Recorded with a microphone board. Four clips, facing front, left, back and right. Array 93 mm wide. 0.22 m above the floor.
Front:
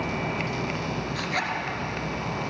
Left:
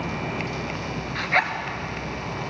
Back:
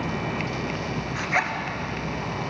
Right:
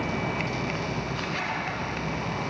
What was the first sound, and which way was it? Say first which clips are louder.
A zipper: left 8 dB, back 6 dB; 115° left.